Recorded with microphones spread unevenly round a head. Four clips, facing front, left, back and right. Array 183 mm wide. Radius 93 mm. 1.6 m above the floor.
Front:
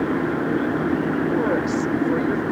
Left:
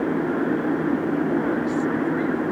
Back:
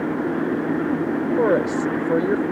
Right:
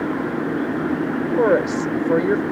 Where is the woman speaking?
120° right.